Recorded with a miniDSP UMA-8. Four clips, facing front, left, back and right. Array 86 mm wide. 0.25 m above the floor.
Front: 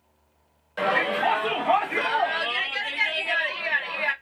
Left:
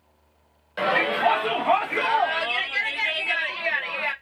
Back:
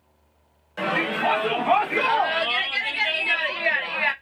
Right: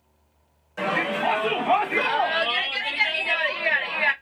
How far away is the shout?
About 1.7 m.